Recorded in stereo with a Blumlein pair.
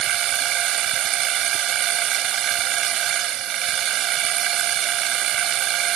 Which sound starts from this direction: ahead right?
A machine running, at 0.0 s.